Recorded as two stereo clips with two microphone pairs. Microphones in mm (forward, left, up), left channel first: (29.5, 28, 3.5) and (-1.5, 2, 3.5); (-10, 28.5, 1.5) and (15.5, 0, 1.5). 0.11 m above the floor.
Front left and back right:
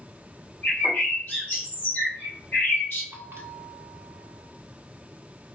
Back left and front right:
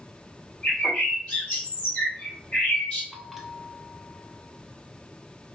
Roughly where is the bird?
Left.